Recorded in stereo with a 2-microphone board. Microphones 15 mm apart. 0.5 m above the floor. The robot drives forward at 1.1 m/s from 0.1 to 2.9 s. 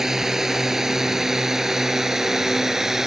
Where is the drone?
20° right (ahead or behind); by 3.1 s 25° right (ahead or behind).